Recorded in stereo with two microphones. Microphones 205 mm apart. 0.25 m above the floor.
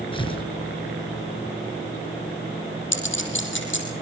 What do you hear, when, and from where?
0.1 s tearing paper: 25° left (ahead or behind), 4.5 m
2.9 s a clink: 65° left (ahead or behind), 5 m